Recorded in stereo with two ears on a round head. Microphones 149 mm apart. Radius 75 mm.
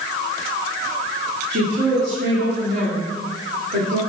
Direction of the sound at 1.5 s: 70° right (ahead or behind).